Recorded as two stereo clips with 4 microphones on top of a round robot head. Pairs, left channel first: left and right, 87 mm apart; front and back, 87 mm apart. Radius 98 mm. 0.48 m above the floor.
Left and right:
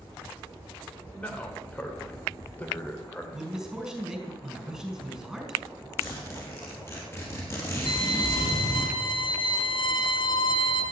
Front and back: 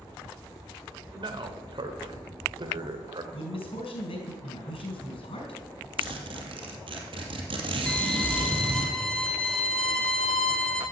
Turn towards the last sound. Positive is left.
turn(degrees=80)